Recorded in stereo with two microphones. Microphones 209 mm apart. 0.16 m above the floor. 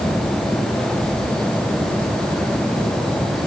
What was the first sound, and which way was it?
Only background noise.